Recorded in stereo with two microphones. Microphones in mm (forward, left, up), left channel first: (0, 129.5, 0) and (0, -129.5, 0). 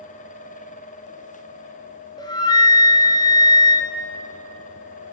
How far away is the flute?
About 0.6 m.